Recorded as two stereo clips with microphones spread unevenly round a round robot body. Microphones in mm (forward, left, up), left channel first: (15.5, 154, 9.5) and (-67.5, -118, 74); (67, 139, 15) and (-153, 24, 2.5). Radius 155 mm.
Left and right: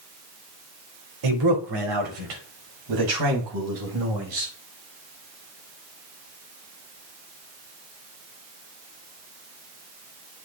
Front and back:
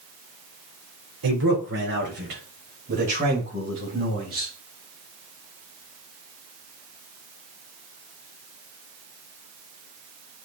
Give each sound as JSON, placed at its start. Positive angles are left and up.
{"t": 1.2, "sound": "a man speaking", "azimuth_deg": -115, "distance_m": 3.5}